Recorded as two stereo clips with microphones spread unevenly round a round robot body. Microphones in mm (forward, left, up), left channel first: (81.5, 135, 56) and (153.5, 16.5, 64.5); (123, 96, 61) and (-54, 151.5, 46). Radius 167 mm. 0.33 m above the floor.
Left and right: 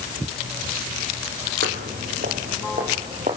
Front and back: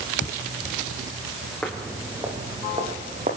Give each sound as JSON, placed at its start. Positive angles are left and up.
{"t": 1.6, "sound": "footsteps", "azimuth_deg": -105, "distance_m": 2.5}